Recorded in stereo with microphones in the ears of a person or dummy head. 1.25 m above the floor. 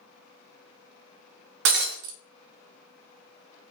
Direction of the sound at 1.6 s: 60° right (ahead or behind).